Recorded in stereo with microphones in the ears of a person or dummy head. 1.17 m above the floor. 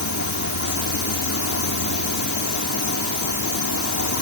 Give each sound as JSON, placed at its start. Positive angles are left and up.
{"t": 0.0, "sound": "an insect", "side_deg": 70}